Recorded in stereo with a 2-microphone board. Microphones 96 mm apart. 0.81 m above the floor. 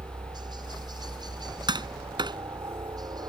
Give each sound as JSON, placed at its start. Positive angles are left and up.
{"t": 0.0, "sound": "a helicopter", "side_deg": -45}
{"t": 1.7, "sound": "tapping", "side_deg": -50}